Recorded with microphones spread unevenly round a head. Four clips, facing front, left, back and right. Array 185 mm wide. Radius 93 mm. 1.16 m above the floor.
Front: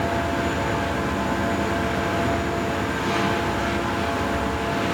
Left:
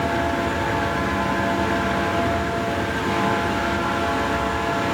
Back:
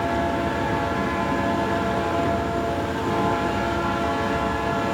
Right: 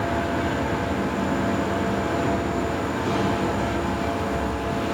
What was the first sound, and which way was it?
Only background noise.